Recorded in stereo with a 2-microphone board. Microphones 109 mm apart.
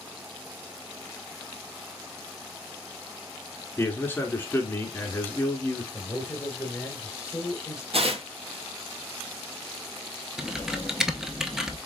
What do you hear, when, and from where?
3.8 s a man speaking: 15° left (ahead or behind), 1.2 m
5.9 s a man speaking: 25° left (ahead or behind), 1.5 m
7.9 s tearing paper: 60° right (ahead or behind), 0.9 m
10.4 s typing on a keyboard: 5° right (ahead or behind), 0.6 m